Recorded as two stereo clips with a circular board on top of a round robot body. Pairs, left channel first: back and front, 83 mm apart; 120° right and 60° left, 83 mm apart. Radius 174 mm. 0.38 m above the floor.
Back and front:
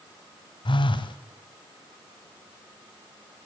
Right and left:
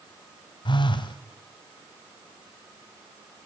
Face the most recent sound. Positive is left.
turn(degrees=-150)